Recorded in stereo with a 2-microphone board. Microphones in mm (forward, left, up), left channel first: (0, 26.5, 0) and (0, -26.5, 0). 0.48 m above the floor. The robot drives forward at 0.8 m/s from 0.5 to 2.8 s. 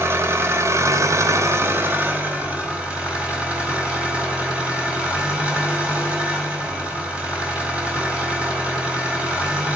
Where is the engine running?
55° right (ahead or behind), 0.8 m; by 9.8 s 25° right (ahead or behind), 1.6 m.